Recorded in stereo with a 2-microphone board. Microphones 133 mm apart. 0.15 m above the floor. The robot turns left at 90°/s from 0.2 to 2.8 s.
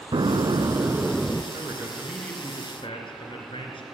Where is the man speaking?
130° right, 2.5 m; by 3.8 s 115° left, 2.5 m.